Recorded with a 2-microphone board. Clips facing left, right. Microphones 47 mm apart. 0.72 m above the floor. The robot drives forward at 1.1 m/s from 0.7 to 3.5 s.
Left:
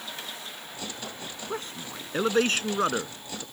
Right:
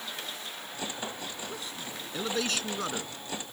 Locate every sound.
1.5 s a man speaking: 45° left (ahead or behind); by 3.4 s 35° left (ahead or behind)